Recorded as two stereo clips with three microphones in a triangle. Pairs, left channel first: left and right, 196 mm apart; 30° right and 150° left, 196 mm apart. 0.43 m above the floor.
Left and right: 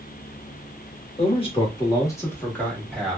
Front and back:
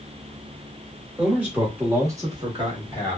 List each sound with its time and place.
1.2 s a man speaking: 70° left, 1.3 m; by 3.2 s 175° right, 1.2 m